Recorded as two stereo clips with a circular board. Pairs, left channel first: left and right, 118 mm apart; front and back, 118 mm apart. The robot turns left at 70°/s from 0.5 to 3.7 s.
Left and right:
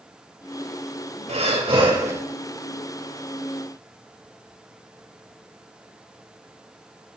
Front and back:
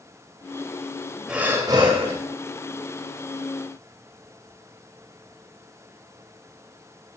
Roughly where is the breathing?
Right.